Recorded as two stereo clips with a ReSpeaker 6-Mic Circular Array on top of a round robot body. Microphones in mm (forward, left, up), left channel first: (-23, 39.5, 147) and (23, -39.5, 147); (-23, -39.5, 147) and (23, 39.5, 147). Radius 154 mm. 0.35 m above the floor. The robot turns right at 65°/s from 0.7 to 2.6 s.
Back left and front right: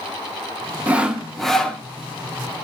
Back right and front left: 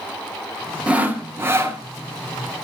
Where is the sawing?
5° right, 1.5 m; by 1.8 s 55° left, 1.5 m.